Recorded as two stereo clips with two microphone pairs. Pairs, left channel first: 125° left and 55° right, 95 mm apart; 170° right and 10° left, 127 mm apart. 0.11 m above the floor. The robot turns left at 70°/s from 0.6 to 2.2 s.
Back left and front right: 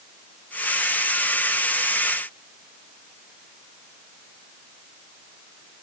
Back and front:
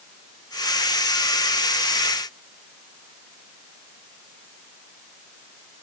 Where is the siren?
I don't hear a siren.